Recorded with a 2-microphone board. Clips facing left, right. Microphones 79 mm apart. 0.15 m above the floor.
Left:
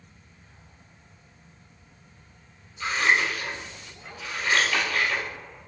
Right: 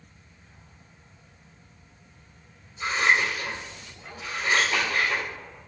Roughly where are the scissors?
Right.